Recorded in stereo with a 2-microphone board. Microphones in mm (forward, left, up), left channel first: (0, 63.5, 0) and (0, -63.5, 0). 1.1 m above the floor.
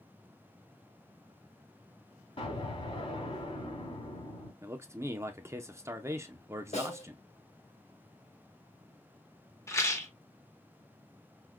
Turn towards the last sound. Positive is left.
turn(degrees=20)  # may be behind; listen again after turning